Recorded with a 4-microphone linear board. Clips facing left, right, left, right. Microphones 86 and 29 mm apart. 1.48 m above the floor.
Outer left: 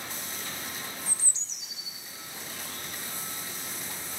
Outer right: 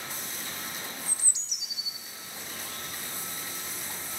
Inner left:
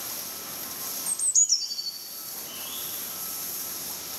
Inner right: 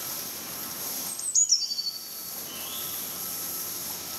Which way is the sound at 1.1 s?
15° right (ahead or behind).